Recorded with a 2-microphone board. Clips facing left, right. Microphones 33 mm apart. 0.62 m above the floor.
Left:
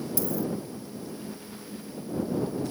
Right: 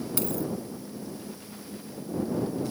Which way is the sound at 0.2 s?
60° right (ahead or behind).